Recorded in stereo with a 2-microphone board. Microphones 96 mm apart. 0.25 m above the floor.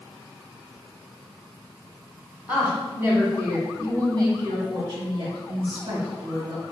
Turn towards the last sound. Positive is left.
turn(degrees=-60)  # may be behind; listen again after turning